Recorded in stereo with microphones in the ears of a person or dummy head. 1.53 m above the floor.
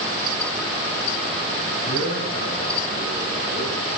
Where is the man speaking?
70° left (ahead or behind), 7 m; by 3.7 s 65° left (ahead or behind), 8 m.